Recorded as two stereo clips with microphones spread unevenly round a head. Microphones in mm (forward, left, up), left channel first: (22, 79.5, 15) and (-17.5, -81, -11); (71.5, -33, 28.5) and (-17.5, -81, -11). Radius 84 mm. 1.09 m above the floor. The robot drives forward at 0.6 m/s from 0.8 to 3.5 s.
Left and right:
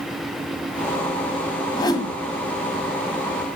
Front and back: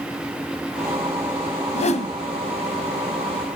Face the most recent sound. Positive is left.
turn(degrees=15)